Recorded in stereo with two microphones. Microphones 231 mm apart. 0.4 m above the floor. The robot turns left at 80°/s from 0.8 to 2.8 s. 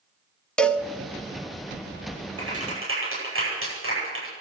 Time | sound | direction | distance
0.6 | a cowbell | 5° left (ahead or behind) | 0.7 m
2.4 | a clap | 75° right (ahead or behind) | 10 m